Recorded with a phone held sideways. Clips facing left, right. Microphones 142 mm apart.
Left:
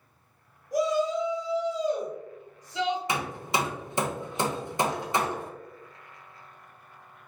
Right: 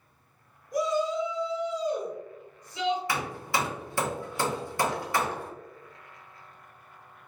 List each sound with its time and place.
0.7 s a shout: 85° left, 1.3 m
3.1 s hammering: 20° left (ahead or behind), 0.5 m